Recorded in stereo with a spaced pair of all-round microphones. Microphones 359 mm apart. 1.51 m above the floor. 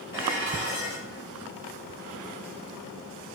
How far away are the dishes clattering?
About 1.9 m.